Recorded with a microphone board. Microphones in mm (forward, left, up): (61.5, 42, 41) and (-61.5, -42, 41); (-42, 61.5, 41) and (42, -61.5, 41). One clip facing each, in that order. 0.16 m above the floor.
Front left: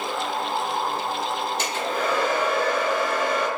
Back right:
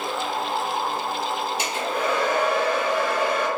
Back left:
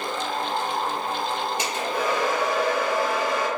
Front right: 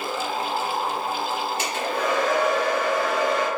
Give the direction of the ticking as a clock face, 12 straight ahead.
No ticking in this recording.